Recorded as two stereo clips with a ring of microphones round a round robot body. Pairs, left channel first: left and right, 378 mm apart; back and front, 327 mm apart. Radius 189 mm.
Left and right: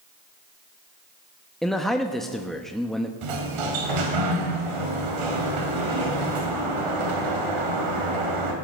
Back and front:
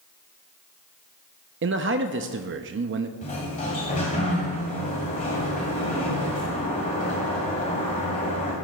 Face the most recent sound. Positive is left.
turn(degrees=-105)